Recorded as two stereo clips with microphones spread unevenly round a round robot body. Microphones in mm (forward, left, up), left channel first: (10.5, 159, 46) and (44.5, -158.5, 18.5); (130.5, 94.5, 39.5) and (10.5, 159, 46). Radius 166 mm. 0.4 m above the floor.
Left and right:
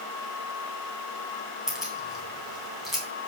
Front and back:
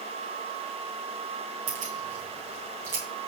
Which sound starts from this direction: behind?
Keys jangling, at 1.7 s.